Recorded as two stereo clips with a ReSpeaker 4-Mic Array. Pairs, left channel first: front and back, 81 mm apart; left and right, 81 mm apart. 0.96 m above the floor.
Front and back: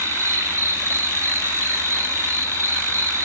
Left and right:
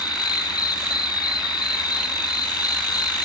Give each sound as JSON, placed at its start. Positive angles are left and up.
{"t": 0.0, "sound": "an insect", "azimuth_deg": 125, "distance_m": 0.9}